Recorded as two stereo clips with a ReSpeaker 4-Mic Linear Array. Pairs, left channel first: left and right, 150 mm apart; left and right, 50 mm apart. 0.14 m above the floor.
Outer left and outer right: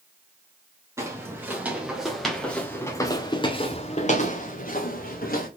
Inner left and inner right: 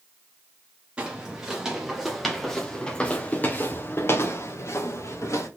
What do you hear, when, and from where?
1.0 s footsteps: 20° right (ahead or behind), 1.7 m; by 5.5 s 80° left, 1.6 m